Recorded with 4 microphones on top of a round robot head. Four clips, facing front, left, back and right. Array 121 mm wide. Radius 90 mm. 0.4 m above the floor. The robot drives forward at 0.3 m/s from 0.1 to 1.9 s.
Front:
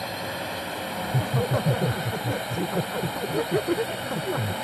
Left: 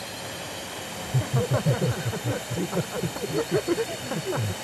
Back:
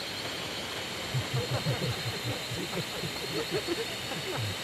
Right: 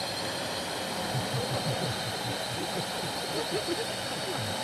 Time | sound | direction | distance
0.0 | a drone | 15° right | ?
1.1 | laughter | 40° left | ?